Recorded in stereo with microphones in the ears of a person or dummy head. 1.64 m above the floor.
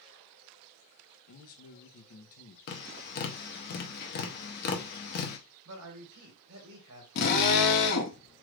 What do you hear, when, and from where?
1.3 s a man speaking: 50° left (ahead or behind), 0.6 m
2.7 s tapping: 50° left (ahead or behind), 0.7 m
5.7 s a man speaking: 75° right (ahead or behind), 1.5 m
7.2 s a drill: 60° left (ahead or behind), 0.8 m